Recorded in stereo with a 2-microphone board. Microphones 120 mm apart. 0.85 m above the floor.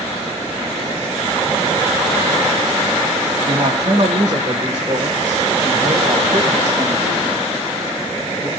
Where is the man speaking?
60° right (ahead or behind), 2.5 m; by 8.5 s 55° right (ahead or behind), 6 m.